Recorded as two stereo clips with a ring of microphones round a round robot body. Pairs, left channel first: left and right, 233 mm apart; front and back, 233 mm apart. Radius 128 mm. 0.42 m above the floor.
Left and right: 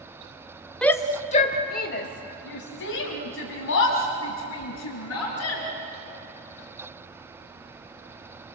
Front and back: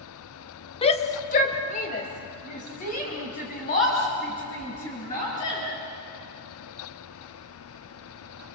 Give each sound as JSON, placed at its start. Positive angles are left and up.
{"t": 0.8, "sound": "a shout", "azimuth_deg": 10, "distance_m": 1.0}